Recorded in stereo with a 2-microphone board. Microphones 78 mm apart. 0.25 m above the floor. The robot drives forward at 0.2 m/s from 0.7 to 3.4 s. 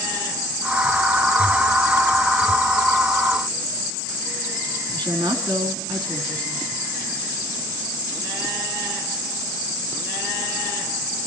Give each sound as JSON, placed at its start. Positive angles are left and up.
{"t": 4.9, "sound": "a woman speaking", "side_deg": -65, "distance_m": 3.5}